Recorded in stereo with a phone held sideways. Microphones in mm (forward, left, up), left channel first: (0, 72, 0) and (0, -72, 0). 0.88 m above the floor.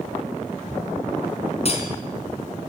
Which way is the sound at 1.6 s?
45° left (ahead or behind).